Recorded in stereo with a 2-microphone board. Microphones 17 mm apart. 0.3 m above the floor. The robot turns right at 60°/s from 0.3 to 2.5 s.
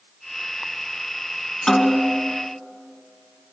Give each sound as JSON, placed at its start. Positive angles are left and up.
{"t": 1.7, "sound": "a snare drum", "azimuth_deg": 40, "distance_m": 3.0}